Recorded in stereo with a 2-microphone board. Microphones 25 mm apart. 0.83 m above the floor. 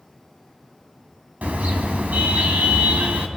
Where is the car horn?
85° right, 3 m.